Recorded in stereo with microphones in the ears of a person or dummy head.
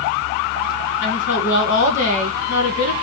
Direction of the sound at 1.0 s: 60° left (ahead or behind).